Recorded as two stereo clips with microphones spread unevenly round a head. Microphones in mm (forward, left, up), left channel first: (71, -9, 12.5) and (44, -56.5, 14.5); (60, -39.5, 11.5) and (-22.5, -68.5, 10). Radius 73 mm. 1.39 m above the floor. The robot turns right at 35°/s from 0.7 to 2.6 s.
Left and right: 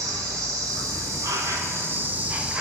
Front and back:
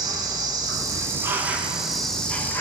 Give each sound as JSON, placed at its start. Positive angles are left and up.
{"t": 0.0, "sound": "an insect", "azimuth_deg": -115, "distance_m": 1.2}